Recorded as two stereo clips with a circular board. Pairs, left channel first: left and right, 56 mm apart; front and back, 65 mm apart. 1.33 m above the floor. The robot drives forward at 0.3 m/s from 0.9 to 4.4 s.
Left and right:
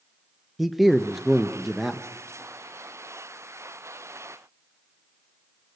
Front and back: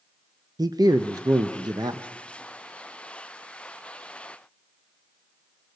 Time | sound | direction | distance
0.6 | a man speaking | straight behind | 0.7 m